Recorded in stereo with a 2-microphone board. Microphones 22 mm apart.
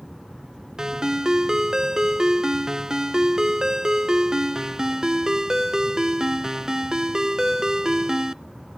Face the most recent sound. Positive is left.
turn(degrees=-25)  # may be behind; listen again after turning